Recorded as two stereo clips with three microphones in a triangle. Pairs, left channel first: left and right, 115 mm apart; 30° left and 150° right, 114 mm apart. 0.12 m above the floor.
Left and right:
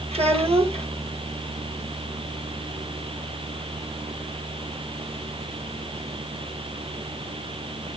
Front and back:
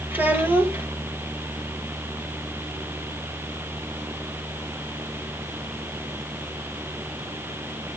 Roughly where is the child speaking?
Right.